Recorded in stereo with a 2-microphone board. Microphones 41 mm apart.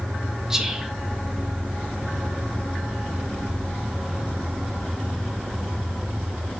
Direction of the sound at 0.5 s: 15° right (ahead or behind).